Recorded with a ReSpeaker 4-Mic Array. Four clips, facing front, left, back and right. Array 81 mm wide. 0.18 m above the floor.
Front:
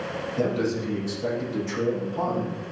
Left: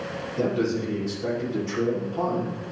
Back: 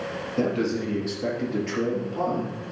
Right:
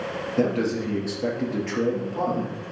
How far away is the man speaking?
About 4.5 m.